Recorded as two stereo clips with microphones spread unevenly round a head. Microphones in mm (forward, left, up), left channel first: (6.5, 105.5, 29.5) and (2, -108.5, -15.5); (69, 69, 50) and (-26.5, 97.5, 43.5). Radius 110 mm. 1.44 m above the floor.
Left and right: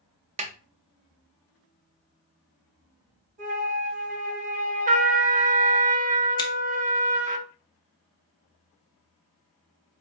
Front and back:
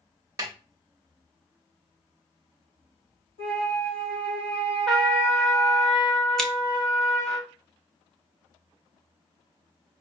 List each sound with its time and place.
0.4 s a snare drum: 140° right, 0.6 m
3.4 s a flute: 35° right, 2 m
4.9 s a trumpet: 90° right, 0.5 m
6.4 s scissors: 60° left, 0.6 m